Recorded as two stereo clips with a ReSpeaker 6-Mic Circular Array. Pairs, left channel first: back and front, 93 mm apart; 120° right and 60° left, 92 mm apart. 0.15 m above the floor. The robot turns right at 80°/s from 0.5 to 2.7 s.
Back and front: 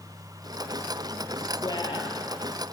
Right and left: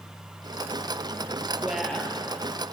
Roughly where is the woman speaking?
Behind left.